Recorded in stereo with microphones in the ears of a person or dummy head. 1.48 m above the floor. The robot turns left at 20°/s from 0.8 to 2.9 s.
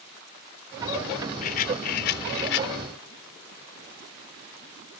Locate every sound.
1.4 s a rattle: 40° left (ahead or behind); by 2.7 s 60° left (ahead or behind)